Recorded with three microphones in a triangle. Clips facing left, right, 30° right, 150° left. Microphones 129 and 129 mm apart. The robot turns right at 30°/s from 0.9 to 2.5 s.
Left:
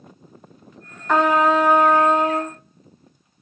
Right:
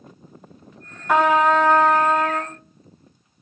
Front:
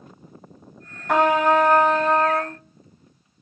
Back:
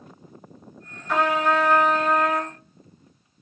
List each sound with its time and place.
1.1 s a trumpet: 5° right, 1.0 m; by 2.6 s 35° left, 1.0 m